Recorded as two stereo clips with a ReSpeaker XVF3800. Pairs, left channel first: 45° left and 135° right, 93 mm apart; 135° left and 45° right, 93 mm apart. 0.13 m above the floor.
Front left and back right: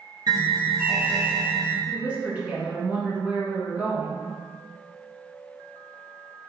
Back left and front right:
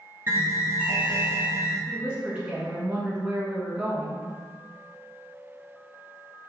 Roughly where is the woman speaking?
Right.